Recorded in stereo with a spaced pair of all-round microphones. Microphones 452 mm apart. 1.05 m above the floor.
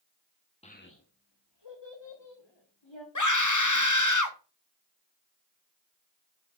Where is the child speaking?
15° left (ahead or behind), 0.9 m; by 3.0 s 80° left, 2.5 m.